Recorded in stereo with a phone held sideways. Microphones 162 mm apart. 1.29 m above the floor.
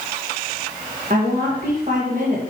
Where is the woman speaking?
55° right (ahead or behind), 1.7 m.